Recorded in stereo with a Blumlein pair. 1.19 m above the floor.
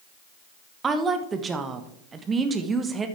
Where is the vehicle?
No vehicle in this recording.